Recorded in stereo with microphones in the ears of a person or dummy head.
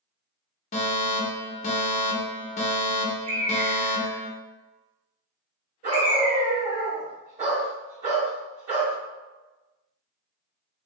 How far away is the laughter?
I don't hear laughter.